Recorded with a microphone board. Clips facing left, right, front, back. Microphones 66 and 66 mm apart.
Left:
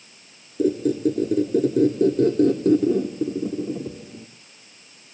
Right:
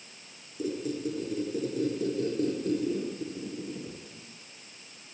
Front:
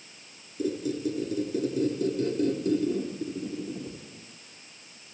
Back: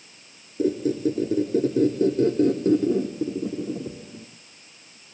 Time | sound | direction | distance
0.6 | a squeak | 125° left | 3.5 m